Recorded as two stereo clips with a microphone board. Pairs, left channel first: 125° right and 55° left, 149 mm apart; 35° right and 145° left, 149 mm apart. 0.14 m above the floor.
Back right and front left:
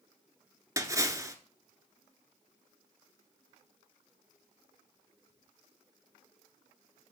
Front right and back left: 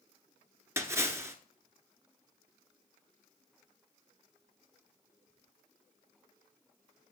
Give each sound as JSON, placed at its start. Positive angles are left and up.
{"t": 0.8, "sound": "a splash", "azimuth_deg": 100, "distance_m": 1.4}